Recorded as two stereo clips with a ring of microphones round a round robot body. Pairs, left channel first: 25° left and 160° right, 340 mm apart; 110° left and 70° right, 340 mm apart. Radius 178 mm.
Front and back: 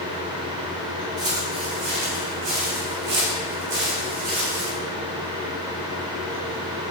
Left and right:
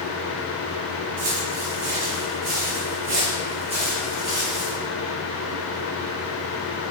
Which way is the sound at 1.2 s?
85° right.